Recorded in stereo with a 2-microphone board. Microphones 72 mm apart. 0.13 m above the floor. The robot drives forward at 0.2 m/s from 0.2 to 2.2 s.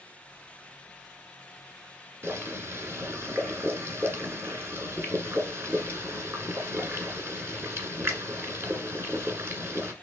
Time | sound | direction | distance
2.2 | boiling | 30° right (ahead or behind) | 1.3 m